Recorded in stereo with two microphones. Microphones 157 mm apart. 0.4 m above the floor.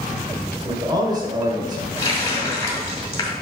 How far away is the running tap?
About 1.8 m.